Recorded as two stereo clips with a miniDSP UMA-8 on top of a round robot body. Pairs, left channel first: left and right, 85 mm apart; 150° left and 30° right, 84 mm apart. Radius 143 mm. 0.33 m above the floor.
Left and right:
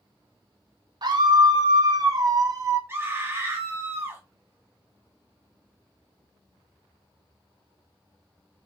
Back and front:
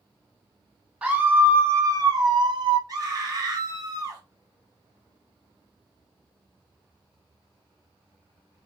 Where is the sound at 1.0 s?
105° right, 1.5 m; by 2.8 s 40° right, 1.6 m.